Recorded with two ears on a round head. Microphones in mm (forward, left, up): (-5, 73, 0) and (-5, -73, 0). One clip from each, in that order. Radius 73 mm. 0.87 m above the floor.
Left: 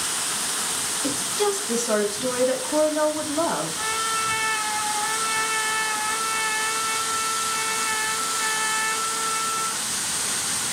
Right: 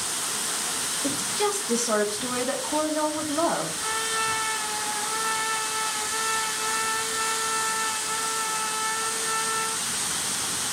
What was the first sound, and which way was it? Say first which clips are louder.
A woman speaking: left 2 dB; 10° right (ahead or behind).